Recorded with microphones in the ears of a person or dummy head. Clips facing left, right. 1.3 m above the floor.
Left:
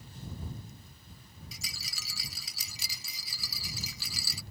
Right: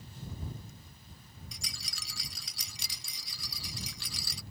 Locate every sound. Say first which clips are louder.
1.5 s a rattle: left 1 dB; 5° left (ahead or behind)